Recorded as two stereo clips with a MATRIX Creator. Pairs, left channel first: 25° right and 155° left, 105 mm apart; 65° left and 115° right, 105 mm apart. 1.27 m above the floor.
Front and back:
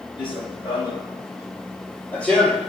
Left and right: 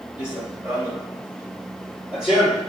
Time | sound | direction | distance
0.2 | running footsteps | 45° right | 1.9 m